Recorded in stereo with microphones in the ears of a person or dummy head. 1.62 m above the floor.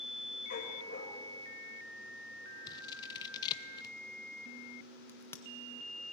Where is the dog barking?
45° left (ahead or behind), 3 m.